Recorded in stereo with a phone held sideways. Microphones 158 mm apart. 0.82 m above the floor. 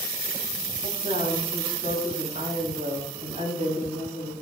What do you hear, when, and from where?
0.8 s a woman speaking: 65° right (ahead or behind), 5.5 m